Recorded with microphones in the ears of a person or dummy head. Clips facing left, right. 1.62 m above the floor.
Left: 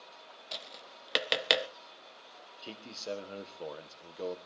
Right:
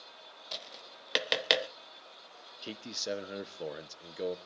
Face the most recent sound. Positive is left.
turn(degrees=-20)  # may be behind; listen again after turning